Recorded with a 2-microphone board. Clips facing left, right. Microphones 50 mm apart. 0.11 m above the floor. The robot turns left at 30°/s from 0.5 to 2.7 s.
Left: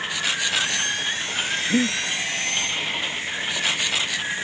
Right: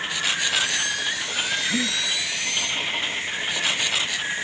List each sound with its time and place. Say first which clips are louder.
1.7 s breathing: left 4 dB; 30° left (ahead or behind), 0.6 m; by 2.0 s 25° left (ahead or behind), 0.6 m